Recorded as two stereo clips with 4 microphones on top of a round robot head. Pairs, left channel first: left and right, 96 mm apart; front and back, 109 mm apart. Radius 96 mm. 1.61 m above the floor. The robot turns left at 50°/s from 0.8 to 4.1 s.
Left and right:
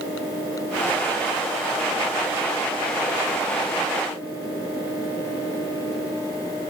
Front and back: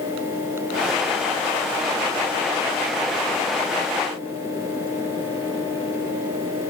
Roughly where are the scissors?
No scissors in this recording.